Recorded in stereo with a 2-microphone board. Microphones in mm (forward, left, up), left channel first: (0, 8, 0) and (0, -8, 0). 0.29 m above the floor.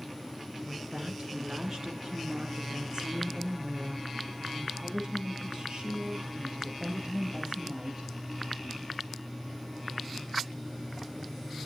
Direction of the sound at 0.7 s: 40° right (ahead or behind).